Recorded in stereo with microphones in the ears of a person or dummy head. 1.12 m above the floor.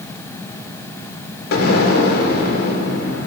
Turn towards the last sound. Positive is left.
turn(degrees=55)  # may be behind; listen again after turning